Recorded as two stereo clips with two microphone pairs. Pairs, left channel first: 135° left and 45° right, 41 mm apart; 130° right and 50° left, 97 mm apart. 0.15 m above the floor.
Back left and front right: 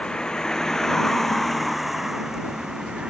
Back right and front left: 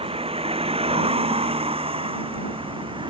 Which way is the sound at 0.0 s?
65° left.